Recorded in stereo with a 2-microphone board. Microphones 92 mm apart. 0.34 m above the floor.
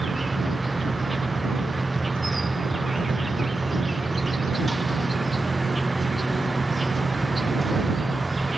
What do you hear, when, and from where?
0.0 s an insect: centre (ahead or behind)